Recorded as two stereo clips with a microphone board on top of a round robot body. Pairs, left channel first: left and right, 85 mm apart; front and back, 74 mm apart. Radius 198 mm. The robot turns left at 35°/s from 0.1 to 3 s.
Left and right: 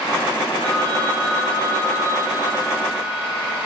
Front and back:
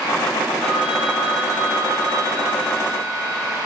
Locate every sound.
0.6 s a phone ringing: 95° right, 6.5 m; by 3.6 s straight behind, 6.5 m